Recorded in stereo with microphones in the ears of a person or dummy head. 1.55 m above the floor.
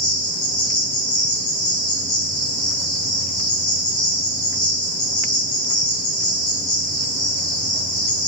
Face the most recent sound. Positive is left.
turn(degrees=35)  # may be behind; listen again after turning